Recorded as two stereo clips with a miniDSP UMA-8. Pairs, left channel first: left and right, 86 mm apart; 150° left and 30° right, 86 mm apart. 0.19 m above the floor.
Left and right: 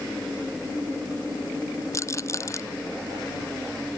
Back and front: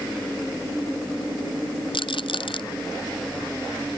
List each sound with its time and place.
1.9 s a rattle: 145° left